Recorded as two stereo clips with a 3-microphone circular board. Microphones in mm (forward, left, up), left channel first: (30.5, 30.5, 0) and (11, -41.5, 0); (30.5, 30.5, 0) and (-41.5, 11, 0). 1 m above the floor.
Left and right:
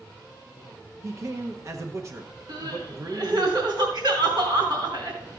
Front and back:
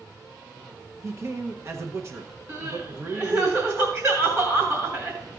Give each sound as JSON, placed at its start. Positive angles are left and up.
{"t": 1.0, "sound": "a man speaking", "azimuth_deg": -130, "distance_m": 0.7}
{"t": 2.5, "sound": "crying", "azimuth_deg": -120, "distance_m": 3.0}